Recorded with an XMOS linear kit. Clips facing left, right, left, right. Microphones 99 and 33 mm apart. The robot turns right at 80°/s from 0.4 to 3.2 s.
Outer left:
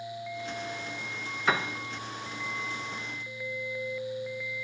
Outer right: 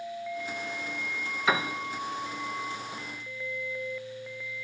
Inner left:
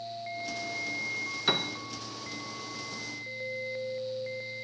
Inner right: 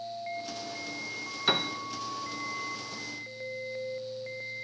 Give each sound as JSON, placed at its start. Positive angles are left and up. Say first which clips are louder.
{"t": 1.5, "sound": "a piano", "louder": "outer right 1 dB, inner right 2 dB", "side_deg": 0, "distance_m": 0.6}